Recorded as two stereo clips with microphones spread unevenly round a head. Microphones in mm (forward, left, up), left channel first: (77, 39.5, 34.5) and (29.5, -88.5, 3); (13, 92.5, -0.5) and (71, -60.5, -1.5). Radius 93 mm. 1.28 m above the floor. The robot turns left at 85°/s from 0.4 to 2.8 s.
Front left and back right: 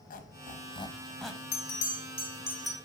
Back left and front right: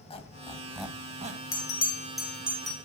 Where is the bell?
80° left, 1.5 m; by 2.7 s 25° right, 1.5 m.